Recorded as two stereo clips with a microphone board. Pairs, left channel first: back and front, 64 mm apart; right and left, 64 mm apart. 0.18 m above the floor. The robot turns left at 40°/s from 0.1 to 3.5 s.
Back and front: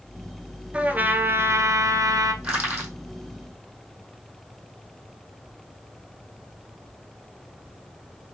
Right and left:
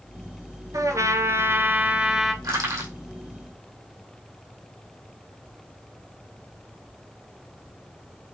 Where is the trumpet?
70° left, 0.9 m; by 2.3 s 5° left, 0.9 m.